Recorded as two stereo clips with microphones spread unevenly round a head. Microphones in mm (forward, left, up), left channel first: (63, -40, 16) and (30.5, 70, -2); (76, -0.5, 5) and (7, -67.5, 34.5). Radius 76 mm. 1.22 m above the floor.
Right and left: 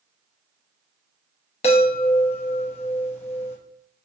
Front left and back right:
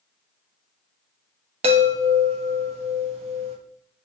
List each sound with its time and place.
1.6 s a chime: 120° right, 0.6 m